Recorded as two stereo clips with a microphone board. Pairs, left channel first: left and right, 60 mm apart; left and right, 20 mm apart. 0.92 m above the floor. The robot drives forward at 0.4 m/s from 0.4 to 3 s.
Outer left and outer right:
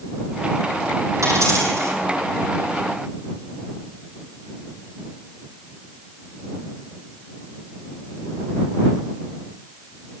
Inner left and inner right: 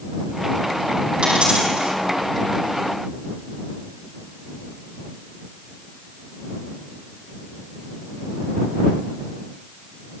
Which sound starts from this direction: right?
A dropped coin, at 1.2 s.